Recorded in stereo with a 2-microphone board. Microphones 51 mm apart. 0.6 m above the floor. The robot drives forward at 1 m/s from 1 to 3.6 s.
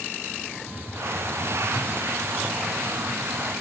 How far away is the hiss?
About 0.9 m.